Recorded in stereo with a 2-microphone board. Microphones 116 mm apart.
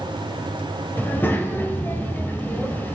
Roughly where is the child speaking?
Centre.